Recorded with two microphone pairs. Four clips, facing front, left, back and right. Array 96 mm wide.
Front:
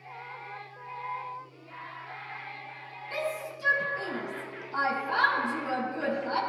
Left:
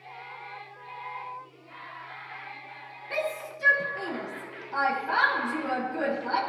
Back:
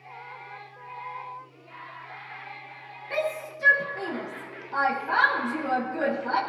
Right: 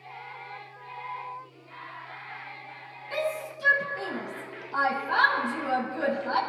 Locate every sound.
3.1 s a shout: 145° left, 6.5 m